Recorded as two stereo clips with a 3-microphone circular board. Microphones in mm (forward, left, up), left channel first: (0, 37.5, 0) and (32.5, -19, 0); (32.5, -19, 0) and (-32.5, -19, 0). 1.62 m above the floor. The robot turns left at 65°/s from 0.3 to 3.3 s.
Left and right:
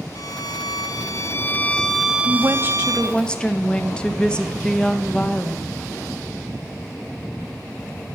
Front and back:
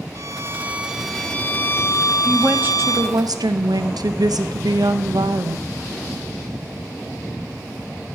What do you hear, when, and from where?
0.1 s a violin: 140° left, 0.5 m; by 3.2 s 50° right, 0.5 m
2.2 s a woman speaking: 95° right, 0.7 m; by 5.7 s 165° right, 0.7 m